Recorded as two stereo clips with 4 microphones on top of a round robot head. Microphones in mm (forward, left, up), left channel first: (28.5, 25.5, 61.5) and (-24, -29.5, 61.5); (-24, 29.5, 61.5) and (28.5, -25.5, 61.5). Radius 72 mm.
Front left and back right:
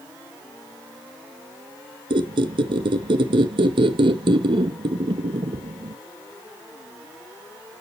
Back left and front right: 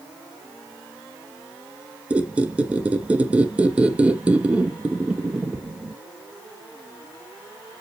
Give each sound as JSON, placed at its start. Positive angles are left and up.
{"t": 2.1, "sound": "a squeak", "azimuth_deg": -120, "distance_m": 0.6}